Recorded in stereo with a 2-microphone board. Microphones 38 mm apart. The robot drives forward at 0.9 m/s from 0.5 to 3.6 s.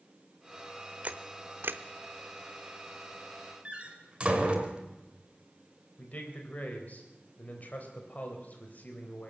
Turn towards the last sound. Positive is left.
turn(degrees=45)  # may be behind; listen again after turning